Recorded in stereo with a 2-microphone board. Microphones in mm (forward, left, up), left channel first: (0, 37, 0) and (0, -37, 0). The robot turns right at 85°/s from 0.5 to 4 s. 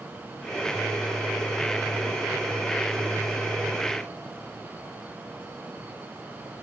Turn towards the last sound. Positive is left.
No sound to turn to.